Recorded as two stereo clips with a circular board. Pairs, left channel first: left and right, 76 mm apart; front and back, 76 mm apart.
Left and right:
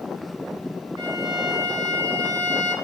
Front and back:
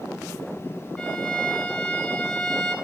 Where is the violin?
80° right, 0.6 m.